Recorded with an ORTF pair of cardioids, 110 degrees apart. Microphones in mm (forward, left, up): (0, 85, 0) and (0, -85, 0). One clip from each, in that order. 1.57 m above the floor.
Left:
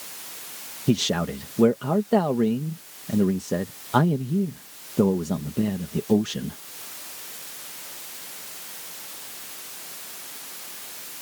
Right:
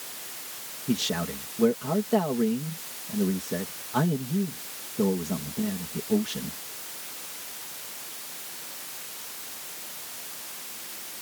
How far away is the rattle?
I don't hear a rattle.